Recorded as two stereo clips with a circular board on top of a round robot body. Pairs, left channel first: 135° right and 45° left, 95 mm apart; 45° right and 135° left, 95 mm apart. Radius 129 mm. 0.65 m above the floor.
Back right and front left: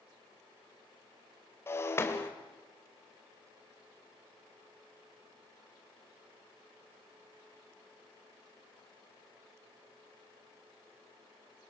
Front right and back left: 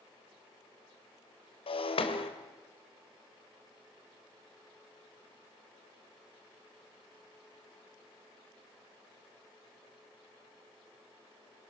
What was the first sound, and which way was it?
Breaking glass, 70° right.